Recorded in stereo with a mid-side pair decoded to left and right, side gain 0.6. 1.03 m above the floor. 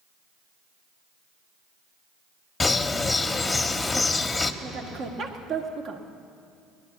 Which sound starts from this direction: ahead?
A bird, at 2.6 s.